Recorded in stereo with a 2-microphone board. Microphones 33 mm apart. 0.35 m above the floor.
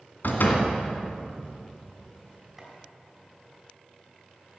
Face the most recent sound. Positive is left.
turn(degrees=-15)  # may be behind; listen again after turning